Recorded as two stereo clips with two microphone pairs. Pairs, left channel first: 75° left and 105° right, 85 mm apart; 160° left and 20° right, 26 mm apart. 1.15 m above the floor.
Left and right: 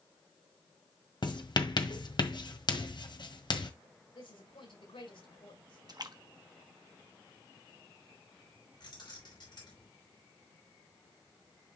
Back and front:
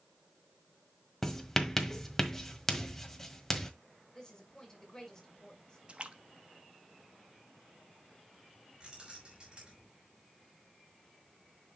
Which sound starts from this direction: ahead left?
Keys jangling, at 8.8 s.